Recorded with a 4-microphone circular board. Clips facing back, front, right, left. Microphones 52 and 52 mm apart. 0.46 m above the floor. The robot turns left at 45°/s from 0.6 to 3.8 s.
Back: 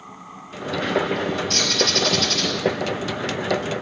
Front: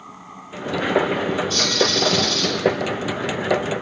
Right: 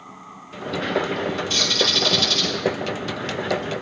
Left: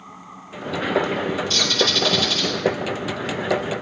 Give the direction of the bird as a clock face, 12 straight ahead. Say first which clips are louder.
Front 2 dB, left 1 dB; 5 o'clock.